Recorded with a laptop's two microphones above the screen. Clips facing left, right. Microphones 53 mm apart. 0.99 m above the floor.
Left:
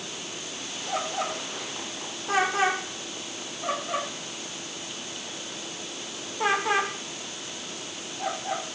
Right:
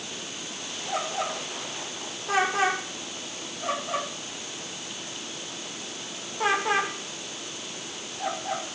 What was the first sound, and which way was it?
Only background noise.